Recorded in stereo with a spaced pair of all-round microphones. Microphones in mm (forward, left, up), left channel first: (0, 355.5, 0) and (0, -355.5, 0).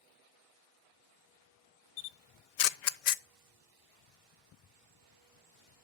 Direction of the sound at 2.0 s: 75° left (ahead or behind).